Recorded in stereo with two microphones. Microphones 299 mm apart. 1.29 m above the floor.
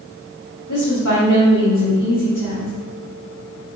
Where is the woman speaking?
85° left, 2.5 m.